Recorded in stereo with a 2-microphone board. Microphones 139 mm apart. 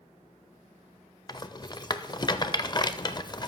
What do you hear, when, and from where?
1.3 s a rattle: 30° left (ahead or behind), 0.5 m